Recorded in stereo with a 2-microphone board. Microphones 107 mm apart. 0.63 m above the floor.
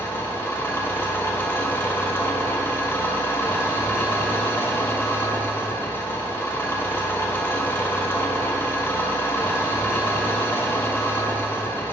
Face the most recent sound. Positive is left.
turn(degrees=20)  # may be behind; listen again after turning